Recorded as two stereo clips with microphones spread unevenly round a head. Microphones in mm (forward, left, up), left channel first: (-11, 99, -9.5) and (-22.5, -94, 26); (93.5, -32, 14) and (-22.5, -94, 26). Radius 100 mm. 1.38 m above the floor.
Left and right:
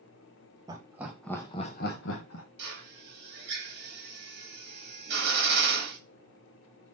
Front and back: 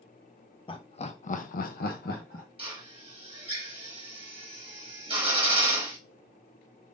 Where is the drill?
115° right, 1.6 m.